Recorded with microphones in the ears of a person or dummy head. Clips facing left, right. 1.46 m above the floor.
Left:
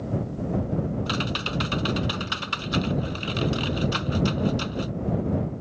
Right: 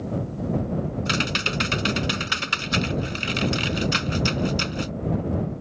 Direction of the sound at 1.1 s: 25° right (ahead or behind).